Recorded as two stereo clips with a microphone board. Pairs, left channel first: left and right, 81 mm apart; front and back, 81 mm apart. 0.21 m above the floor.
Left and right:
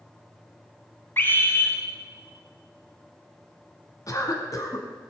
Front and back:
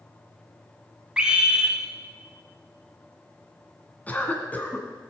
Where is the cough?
65° left, 1.9 m.